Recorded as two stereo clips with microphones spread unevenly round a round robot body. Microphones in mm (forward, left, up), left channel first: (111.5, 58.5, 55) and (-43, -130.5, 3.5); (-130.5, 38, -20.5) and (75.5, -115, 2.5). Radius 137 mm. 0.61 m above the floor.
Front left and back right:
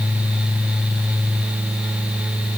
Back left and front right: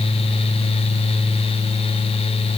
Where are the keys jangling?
No keys jangling in this recording.